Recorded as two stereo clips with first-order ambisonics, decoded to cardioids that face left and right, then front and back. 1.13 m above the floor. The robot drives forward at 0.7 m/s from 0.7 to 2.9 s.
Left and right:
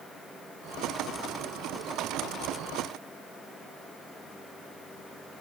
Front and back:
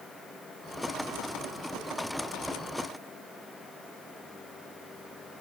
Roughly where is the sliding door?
No sliding door in this recording.